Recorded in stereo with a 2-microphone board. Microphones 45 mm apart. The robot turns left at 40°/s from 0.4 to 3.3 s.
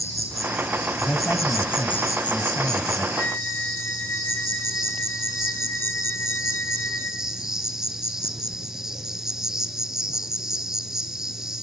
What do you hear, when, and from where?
0.0 s an insect: 105° left, 1.5 m; by 11.6 s 10° right, 1.5 m
1.0 s a man speaking: 135° left, 2.5 m; by 3.1 s 55° left, 2.5 m
3.2 s a flute: 40° left (ahead or behind), 1.7 m; by 7.3 s 45° left (ahead or behind), 1.7 m